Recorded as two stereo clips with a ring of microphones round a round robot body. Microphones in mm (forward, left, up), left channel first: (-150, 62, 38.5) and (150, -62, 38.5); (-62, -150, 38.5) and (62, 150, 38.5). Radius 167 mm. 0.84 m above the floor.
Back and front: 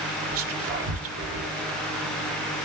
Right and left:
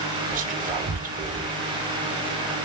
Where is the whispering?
10° left, 0.5 m.